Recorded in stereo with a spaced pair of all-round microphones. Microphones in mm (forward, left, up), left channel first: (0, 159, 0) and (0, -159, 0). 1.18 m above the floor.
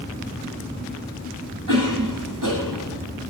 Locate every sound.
1.7 s a cough: 75° right (ahead or behind), 6 m